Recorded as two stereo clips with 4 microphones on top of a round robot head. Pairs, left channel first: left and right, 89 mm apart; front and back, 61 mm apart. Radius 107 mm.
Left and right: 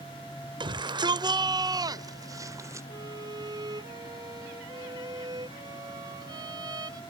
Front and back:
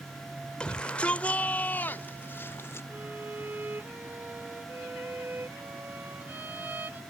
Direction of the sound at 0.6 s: 75° right.